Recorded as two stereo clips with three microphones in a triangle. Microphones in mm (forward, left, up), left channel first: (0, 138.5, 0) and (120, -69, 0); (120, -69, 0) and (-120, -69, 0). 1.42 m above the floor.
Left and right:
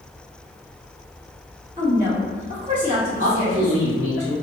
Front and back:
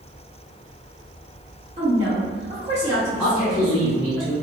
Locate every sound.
1.8 s a woman speaking: 115° right, 1.4 m
3.2 s a man speaking: 85° right, 1.5 m